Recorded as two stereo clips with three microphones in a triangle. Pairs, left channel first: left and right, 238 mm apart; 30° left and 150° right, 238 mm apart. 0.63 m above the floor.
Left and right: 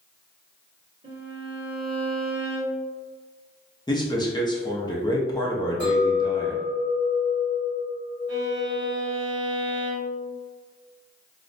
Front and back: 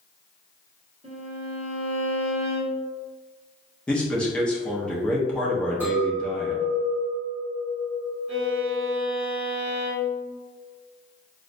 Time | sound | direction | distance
1.0 | a violin | 90° right | 1.1 m
3.9 | a man speaking | 105° left | 0.7 m
5.8 | a clink | 130° left | 1.2 m
8.3 | a violin | 75° left | 1.6 m